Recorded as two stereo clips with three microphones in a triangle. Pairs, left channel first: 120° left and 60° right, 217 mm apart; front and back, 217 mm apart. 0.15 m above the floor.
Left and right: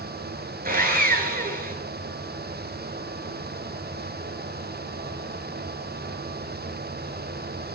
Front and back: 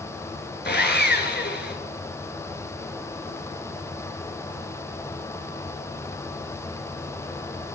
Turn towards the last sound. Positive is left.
turn(degrees=-25)